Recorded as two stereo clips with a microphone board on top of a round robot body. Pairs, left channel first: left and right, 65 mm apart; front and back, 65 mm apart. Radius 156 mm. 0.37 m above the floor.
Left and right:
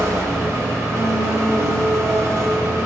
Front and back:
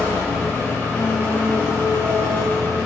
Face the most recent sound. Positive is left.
turn(degrees=-55)